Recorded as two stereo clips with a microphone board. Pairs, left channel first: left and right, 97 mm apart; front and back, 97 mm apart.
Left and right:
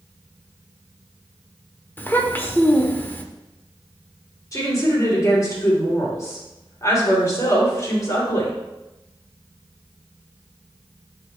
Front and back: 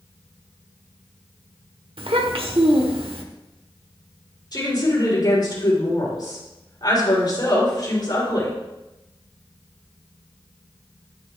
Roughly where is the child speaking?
Behind.